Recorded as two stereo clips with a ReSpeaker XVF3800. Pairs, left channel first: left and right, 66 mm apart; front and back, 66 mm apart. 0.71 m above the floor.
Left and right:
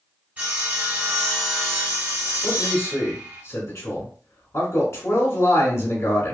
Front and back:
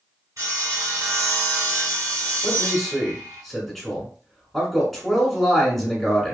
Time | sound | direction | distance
0.4 | sawing | 155° right | 1.7 m
2.4 | a man speaking | 80° left | 1.4 m